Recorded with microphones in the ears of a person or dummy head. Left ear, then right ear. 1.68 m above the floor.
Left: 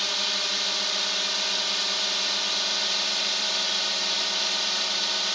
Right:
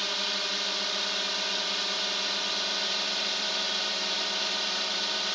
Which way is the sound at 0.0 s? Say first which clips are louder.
Left 4 dB; 15° left (ahead or behind).